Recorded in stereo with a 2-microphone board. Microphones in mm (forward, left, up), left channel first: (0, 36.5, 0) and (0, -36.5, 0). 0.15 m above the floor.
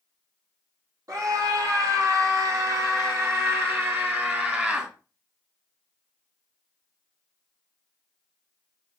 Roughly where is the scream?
Right.